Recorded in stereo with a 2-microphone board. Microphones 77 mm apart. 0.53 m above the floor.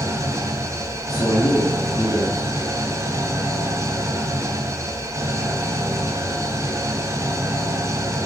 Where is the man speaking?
50° left (ahead or behind), 3 m.